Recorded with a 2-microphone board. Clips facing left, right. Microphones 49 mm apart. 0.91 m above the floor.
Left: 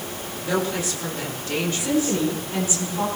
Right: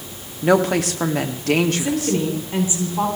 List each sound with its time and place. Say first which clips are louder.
0.4 s a woman speaking: right 8 dB; 60° right (ahead or behind), 2 m
1.8 s a woman speaking: right 1 dB; 25° right (ahead or behind), 9.5 m